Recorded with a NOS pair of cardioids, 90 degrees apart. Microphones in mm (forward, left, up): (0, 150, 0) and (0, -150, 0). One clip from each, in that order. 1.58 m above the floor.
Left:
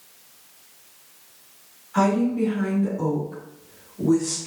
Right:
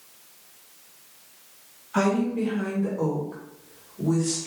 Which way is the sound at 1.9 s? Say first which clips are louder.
Left 3 dB; 35° right.